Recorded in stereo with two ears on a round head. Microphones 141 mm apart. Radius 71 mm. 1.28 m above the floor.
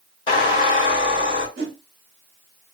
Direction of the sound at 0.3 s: 35° left (ahead or behind).